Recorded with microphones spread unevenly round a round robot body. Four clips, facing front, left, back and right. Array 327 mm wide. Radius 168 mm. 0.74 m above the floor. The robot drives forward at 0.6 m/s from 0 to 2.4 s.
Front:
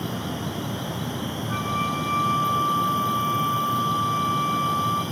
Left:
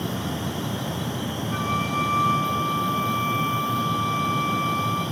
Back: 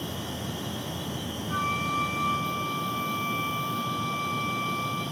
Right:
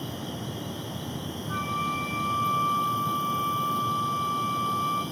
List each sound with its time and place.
0.0 s an insect: 25° right, 8 m; by 5.1 s 30° right, 6.5 m
1.5 s a flute: 40° right, 9.5 m; by 5.0 s 45° right, 9 m